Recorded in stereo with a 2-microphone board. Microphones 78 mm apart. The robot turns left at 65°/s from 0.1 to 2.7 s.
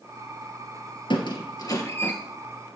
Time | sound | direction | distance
1.1 | a squeak | 85° left | 2 m